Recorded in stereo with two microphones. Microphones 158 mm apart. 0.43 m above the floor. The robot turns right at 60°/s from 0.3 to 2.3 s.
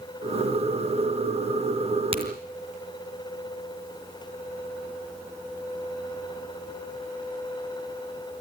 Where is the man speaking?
I don't hear a man speaking.